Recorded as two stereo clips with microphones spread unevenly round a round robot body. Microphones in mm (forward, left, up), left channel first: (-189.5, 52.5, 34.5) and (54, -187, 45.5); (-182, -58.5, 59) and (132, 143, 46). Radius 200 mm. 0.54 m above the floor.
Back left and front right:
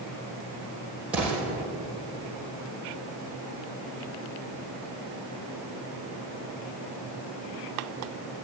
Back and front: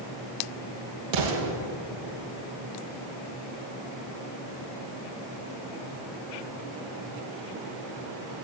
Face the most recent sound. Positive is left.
turn(degrees=40)